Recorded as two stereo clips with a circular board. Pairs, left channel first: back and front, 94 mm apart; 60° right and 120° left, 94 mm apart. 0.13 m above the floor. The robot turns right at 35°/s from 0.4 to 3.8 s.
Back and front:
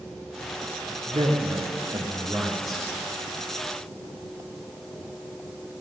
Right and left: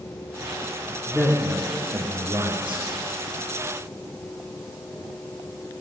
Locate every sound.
1.1 s a man speaking: 35° left, 6 m; by 2.8 s 95° left, 6 m